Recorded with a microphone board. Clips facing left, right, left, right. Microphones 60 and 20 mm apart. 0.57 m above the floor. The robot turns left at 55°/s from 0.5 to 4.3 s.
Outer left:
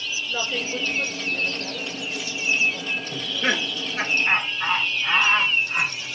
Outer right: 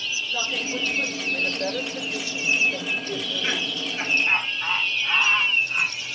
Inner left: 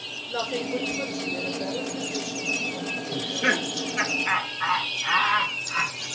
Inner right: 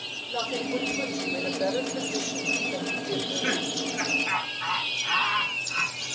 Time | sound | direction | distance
0.3 | a woman speaking | 20° left | 8 m
3.1 | laughter | 50° left (ahead or behind) | 3 m